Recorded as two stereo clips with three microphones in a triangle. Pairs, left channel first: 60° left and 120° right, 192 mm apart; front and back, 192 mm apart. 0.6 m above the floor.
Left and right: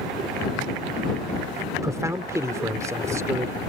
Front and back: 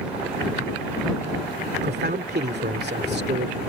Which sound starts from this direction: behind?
A man speaking, at 1.8 s.